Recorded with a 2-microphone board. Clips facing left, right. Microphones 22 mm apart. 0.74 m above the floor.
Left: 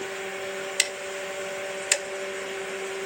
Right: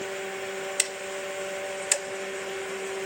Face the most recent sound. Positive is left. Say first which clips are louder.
# left 6 dB
turn(degrees=25)  # may be behind; listen again after turning